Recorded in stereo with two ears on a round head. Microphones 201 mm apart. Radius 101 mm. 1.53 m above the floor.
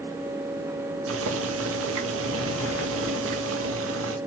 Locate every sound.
1.1 s boiling: 60° right (ahead or behind), 1.6 m